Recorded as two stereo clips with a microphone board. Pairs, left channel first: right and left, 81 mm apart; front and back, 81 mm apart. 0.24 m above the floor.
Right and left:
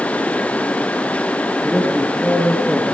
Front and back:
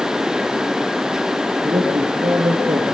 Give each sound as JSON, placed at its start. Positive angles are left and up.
{"t": 1.6, "sound": "a man speaking", "azimuth_deg": -170, "distance_m": 7.0}